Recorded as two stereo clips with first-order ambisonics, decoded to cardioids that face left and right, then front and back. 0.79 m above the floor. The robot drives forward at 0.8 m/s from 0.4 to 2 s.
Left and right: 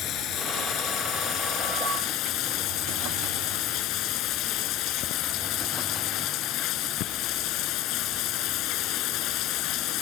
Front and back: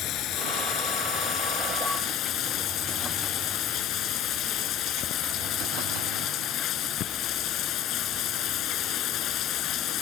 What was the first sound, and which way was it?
Running water, 45° left.